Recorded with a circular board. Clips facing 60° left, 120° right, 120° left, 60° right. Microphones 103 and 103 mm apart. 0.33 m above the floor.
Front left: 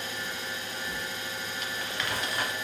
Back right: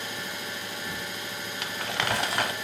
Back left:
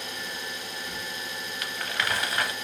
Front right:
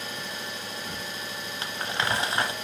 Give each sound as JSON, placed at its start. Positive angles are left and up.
{"t": 0.0, "sound": "an engine running", "azimuth_deg": -100, "distance_m": 5.5}
{"t": 1.6, "sound": "crumpling", "azimuth_deg": -120, "distance_m": 0.7}